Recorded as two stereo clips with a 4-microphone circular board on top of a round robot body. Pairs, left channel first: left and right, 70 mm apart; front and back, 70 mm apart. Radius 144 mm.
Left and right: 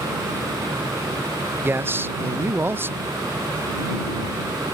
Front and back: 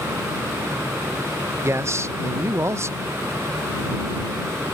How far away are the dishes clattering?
I don't hear dishes clattering.